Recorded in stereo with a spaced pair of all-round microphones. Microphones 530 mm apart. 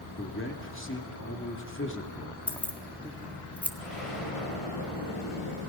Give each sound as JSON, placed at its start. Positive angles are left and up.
{"t": 0.2, "sound": "a man speaking", "side_deg": 20, "distance_m": 2.5}
{"t": 2.5, "sound": "keys jangling", "side_deg": 0, "distance_m": 1.5}
{"t": 3.8, "sound": "an explosion", "side_deg": 85, "distance_m": 7.0}